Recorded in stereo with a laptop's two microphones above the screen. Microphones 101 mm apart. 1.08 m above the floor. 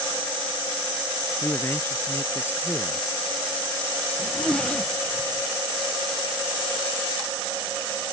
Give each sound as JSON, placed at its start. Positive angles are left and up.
{"t": 1.4, "sound": "a man speaking", "side_deg": 25}
{"t": 4.2, "sound": "a zipper", "side_deg": 10}